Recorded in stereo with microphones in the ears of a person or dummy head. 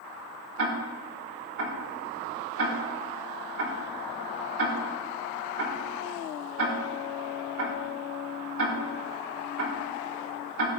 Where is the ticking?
85° right, 5 m.